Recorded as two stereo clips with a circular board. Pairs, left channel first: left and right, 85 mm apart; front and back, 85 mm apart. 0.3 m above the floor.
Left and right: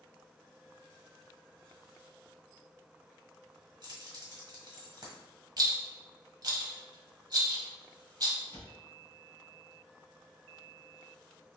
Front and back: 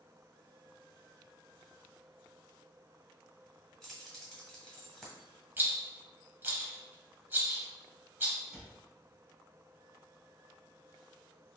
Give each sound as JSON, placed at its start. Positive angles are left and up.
{"t": 3.8, "sound": "keys jangling", "azimuth_deg": -90, "distance_m": 1.4}
{"t": 5.6, "sound": "a rattle", "azimuth_deg": -120, "distance_m": 0.8}
{"t": 8.5, "sound": "a cupboard door", "azimuth_deg": -105, "distance_m": 1.9}